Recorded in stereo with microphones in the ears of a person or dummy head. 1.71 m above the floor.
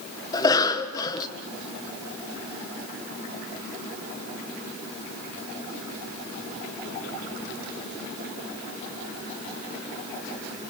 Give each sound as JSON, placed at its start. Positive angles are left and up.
{"t": 0.3, "sound": "a cough", "side_deg": 25, "distance_m": 1.8}